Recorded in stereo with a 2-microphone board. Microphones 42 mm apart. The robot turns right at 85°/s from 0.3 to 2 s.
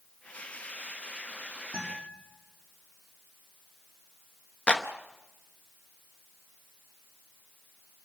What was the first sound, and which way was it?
A guitar, 20° right (ahead or behind).